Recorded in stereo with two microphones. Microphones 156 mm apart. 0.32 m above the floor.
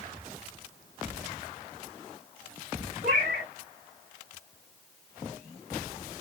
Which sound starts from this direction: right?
A cat meowing, at 3.0 s.